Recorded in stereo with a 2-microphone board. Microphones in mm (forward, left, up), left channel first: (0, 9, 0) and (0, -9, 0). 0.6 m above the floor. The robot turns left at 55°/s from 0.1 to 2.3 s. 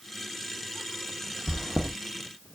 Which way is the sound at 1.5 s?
55° right (ahead or behind).